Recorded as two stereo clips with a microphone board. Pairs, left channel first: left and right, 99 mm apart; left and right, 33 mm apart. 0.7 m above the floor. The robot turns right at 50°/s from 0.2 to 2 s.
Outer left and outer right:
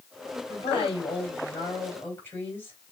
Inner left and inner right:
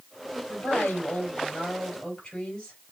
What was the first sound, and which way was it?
A woman speaking, 80° left.